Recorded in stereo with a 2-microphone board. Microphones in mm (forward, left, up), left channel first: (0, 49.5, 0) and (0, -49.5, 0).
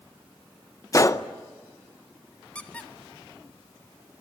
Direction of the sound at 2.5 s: 15° left (ahead or behind).